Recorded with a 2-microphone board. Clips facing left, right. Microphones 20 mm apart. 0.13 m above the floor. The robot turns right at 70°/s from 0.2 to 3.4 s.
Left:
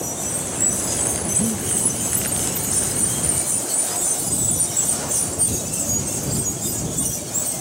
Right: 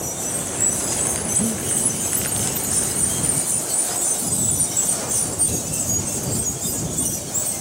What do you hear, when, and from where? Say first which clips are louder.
1.4 s breathing: left 1 dB; 10° left (ahead or behind); by 1.7 s 10° right (ahead or behind)